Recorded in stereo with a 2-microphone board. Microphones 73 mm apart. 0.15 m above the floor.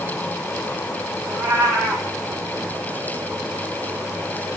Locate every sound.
1.2 s a cat meowing: 45° right (ahead or behind), 4 m